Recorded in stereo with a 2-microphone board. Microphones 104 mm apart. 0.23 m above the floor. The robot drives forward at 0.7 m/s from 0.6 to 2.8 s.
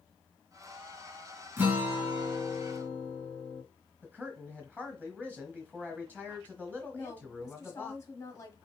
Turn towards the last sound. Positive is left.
turn(degrees=30)  # may be behind; listen again after turning